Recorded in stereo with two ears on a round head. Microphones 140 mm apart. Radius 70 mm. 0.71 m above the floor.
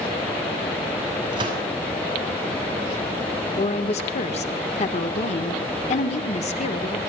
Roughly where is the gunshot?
Right.